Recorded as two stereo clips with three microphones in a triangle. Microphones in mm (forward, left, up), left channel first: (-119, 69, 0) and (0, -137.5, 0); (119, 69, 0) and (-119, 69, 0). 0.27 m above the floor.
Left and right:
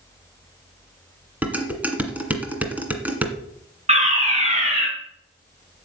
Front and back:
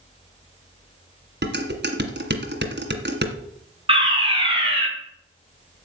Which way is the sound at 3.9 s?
120° right.